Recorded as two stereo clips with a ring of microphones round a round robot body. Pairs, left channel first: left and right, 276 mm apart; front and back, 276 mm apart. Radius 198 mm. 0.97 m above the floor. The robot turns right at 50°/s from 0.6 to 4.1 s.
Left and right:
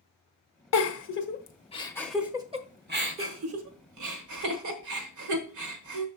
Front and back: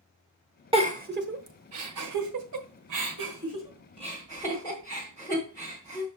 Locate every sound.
0.7 s a giggle: 110° left, 1.2 m; by 6.1 s 80° right, 1.2 m